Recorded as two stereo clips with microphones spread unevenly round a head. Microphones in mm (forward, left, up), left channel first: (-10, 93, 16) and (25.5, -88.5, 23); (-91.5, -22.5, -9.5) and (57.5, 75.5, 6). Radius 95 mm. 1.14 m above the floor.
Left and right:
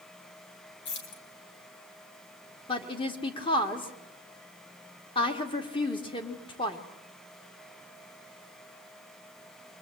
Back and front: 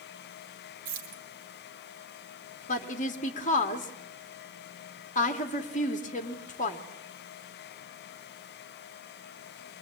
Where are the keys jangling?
70° left, 3.5 m.